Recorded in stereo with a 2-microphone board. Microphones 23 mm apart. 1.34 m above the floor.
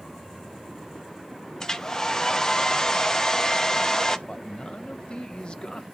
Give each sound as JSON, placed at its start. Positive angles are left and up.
{"t": 1.6, "sound": "a hair dryer", "side_deg": 25, "distance_m": 0.7}
{"t": 4.3, "sound": "a man speaking", "side_deg": 45, "distance_m": 0.8}